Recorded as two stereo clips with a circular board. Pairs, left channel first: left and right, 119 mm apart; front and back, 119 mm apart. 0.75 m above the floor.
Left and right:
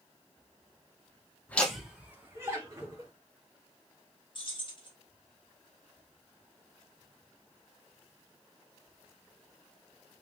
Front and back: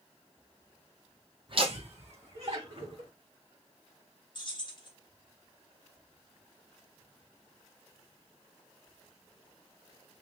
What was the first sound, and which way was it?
Laughter, 160° left.